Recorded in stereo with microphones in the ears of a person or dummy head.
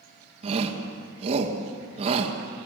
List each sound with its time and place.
0.4 s a shout: 35° right (ahead or behind), 2.5 m